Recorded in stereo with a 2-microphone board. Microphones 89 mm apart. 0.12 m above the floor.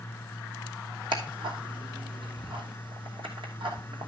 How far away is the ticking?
About 2.5 m.